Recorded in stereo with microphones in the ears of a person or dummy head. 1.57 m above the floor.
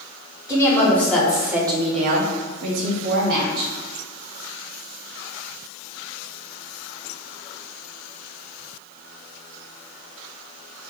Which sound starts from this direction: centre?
A woman speaking, at 0.5 s.